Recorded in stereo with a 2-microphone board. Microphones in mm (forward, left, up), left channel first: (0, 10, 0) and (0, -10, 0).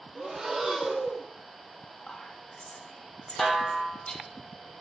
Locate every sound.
0.1 s breathing: 20° right (ahead or behind), 1.2 m
2.1 s whispering: 70° left (ahead or behind), 1.1 m
3.4 s a snare drum: 15° left (ahead or behind), 1.7 m